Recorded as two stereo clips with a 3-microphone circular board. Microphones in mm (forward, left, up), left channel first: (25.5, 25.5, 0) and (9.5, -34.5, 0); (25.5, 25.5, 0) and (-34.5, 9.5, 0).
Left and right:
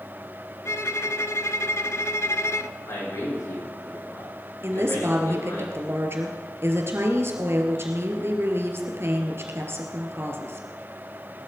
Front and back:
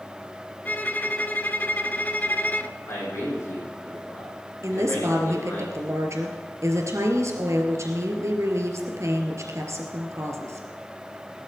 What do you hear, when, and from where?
0.7 s a violin: 65° left, 0.7 m
2.9 s a man speaking: 50° left, 7.5 m
4.6 s a woman speaking: 145° right, 3 m